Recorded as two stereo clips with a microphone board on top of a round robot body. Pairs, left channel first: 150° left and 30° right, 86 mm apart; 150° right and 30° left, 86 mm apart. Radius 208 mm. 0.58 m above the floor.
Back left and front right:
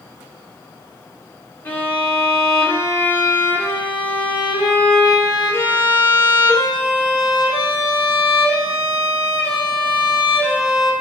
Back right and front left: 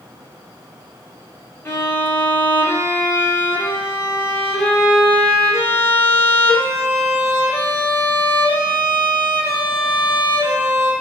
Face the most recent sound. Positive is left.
turn(degrees=-165)